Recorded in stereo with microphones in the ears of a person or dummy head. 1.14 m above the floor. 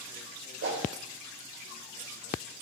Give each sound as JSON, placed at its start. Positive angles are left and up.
{"t": 0.6, "sound": "a whoosh", "side_deg": -80, "distance_m": 1.9}